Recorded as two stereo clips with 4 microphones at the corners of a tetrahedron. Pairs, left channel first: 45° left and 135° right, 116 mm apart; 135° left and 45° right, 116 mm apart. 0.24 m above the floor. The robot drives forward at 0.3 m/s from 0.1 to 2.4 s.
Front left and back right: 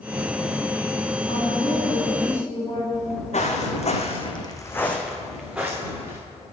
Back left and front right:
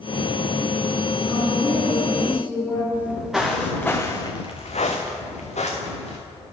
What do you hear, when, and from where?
1.3 s a woman speaking: 60° left, 2.5 m; by 2.8 s 70° left, 2.5 m
2.9 s footsteps: 35° left, 1.6 m; by 6.2 s 155° left, 1.8 m